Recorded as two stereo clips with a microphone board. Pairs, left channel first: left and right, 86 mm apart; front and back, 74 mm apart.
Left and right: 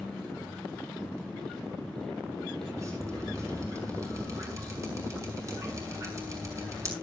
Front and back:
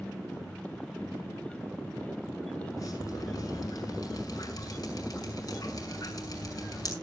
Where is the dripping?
35° right, 6 m.